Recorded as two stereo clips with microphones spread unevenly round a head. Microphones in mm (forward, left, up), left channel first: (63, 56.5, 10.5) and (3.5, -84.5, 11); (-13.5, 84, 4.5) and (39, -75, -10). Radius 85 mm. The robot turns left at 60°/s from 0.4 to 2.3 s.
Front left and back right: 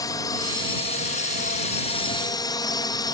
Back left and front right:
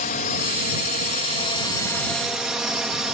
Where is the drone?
130° left; by 3.1 s 15° left.